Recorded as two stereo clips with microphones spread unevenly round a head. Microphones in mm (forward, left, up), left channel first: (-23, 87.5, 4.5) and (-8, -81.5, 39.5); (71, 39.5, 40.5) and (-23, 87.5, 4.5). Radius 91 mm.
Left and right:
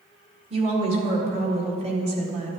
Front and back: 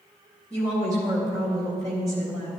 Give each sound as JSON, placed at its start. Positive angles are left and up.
{"t": 0.5, "sound": "a woman speaking", "azimuth_deg": -140, "distance_m": 1.9}